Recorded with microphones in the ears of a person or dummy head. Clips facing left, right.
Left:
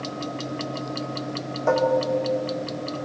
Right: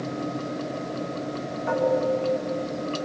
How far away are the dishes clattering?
About 2 m.